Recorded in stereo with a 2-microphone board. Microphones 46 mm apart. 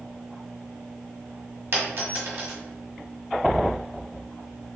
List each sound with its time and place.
1.7 s a dropped coin: 50° right (ahead or behind), 1.2 m